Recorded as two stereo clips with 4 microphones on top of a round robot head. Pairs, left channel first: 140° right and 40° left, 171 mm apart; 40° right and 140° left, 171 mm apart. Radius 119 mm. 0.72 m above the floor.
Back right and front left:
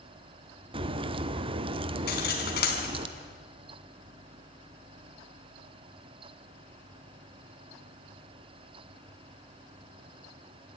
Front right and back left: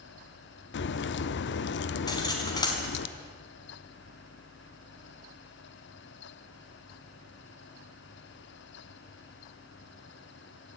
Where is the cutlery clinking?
105° right, 4 m.